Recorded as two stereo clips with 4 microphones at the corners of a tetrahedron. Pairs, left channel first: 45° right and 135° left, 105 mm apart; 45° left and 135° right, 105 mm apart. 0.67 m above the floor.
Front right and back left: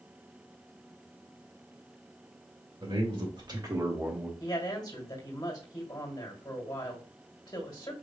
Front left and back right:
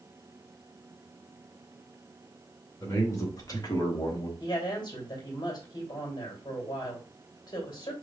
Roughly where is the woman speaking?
Ahead.